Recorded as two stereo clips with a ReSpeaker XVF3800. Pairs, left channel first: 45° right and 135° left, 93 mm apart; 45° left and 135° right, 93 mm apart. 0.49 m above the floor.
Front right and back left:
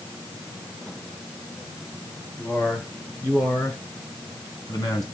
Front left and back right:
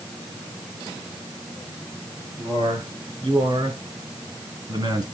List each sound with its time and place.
2.4 s a man speaking: 115° right, 7.5 m; by 5.0 s 95° right, 4 m